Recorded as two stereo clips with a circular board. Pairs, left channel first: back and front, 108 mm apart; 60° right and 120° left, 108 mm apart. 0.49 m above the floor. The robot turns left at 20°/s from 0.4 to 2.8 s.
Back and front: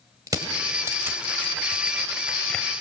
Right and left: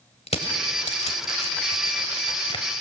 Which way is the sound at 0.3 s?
55° right.